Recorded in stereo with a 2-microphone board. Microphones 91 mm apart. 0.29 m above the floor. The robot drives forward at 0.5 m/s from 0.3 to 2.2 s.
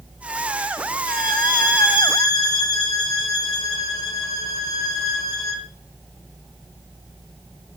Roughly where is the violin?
Left.